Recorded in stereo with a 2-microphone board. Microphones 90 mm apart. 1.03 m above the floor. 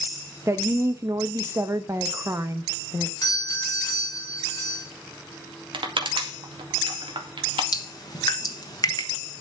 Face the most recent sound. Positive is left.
turn(degrees=50)  # may be behind; listen again after turning